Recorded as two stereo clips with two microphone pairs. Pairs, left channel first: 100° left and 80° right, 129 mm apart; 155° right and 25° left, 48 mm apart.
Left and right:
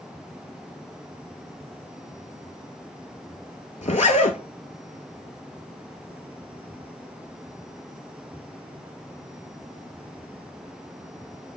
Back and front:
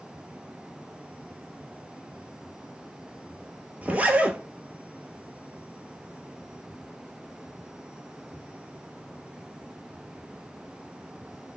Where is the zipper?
75° left, 0.6 m.